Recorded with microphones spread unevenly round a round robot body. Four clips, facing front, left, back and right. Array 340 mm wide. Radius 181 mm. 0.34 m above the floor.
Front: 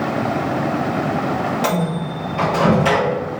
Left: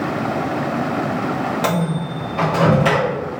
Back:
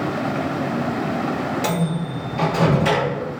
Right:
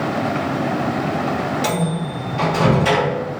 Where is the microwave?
100° left, 1.4 m.